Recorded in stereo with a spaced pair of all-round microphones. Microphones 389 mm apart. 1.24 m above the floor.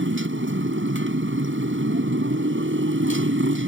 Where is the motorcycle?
35° right (ahead or behind).